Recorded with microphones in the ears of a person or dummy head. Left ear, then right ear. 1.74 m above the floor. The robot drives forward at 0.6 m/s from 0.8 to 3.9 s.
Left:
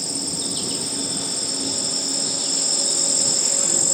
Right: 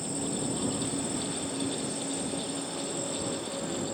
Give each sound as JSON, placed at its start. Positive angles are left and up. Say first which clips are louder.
{"t": 0.0, "sound": "an insect", "louder": "left 7 dB", "side_deg": 50}